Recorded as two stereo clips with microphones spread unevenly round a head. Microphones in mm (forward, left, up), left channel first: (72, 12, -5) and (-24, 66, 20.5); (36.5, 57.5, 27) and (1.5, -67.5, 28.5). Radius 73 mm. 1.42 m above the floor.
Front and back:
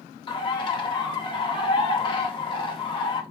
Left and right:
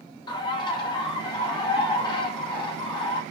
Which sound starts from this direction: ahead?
A bird, at 0.3 s.